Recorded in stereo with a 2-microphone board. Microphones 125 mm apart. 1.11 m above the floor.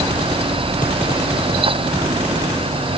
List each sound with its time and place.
Only background noise.